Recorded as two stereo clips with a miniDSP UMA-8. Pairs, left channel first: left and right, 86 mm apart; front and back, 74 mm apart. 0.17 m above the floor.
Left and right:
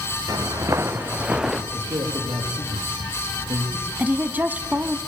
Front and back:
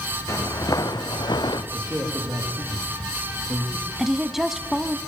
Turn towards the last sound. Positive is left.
turn(degrees=-105)